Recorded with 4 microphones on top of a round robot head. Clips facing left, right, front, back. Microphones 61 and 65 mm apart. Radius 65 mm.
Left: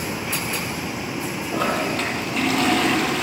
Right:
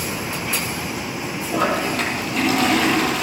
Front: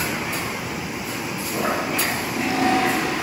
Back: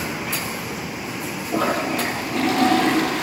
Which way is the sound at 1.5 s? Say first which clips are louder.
Right 3 dB, back 2 dB; 175° right.